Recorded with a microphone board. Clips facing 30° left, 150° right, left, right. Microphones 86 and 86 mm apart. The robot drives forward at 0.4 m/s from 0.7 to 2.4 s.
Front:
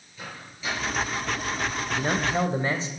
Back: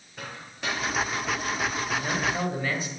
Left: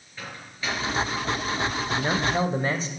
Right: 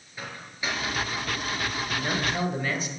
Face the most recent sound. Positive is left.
turn(degrees=65)